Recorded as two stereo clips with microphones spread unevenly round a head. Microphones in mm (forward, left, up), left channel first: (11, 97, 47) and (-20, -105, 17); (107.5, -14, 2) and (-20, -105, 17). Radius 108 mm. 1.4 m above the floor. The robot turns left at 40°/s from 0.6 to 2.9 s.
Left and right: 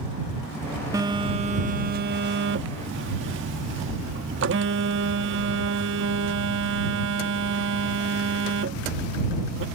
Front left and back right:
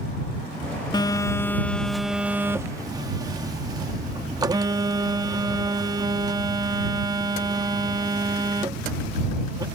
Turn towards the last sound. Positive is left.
turn(degrees=-100)